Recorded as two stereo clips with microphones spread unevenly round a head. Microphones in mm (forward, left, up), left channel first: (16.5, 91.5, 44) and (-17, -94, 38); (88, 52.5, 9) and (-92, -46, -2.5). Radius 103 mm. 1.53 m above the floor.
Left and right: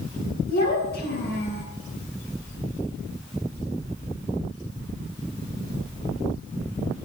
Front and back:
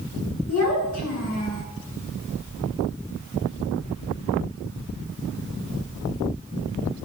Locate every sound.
0.5 s a child speaking: 35° left, 8.5 m; by 1.6 s 45° left, 8.5 m